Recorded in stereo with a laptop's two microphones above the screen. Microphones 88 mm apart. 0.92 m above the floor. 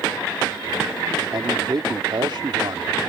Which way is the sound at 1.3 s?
60° right (ahead or behind).